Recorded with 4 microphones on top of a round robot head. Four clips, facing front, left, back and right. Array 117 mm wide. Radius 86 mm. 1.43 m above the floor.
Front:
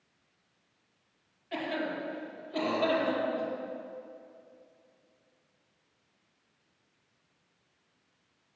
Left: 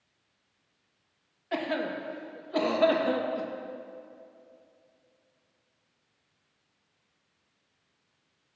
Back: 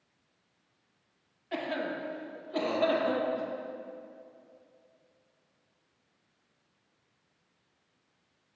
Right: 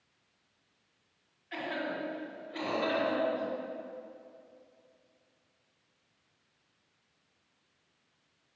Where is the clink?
I don't hear a clink.